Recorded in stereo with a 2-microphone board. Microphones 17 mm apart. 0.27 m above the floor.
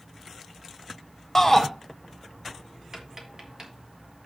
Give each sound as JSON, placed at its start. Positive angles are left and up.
{"t": 1.4, "sound": "a shout", "side_deg": 15, "distance_m": 1.0}
{"t": 2.9, "sound": "tapping", "side_deg": -30, "distance_m": 2.0}